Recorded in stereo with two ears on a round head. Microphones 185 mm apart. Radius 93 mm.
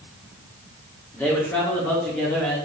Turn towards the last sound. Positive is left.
turn(degrees=5)  # may be behind; listen again after turning